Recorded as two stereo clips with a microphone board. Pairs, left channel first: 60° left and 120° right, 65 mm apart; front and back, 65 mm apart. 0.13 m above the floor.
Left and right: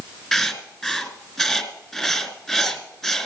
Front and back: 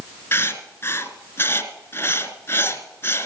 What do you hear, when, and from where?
0.3 s writing: 20° right, 1.9 m